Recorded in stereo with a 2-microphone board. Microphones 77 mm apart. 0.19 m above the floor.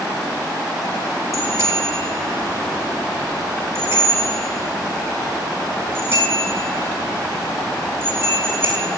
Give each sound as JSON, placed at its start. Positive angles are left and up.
{"t": 1.3, "sound": "a bicycle bell", "side_deg": -40, "distance_m": 6.0}